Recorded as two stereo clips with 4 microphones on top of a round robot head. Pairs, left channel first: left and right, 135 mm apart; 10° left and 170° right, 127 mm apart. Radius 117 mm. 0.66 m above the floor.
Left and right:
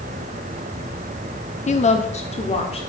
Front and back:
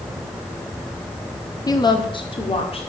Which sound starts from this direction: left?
A woman speaking, at 1.7 s.